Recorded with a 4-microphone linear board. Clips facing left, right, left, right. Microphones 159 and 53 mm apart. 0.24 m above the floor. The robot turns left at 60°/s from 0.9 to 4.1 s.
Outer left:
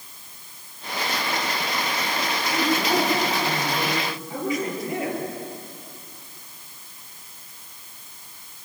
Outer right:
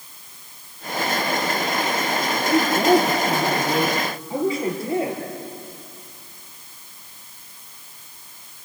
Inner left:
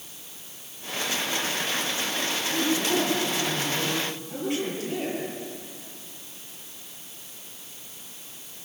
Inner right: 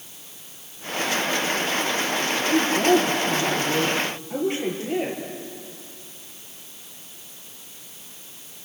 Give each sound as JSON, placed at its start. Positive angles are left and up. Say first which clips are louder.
{"t": 2.5, "sound": "a woman speaking", "louder": "outer right 7 dB, inner right 8 dB", "azimuth_deg": -50, "distance_m": 6.5}